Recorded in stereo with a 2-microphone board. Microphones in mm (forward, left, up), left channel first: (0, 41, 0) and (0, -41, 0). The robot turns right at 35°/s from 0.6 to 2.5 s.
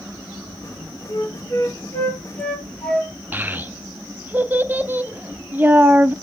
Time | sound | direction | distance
1.1 | a flute | 60° left (ahead or behind) | 1.7 m
3.3 | a child speaking | 20° right (ahead or behind) | 0.6 m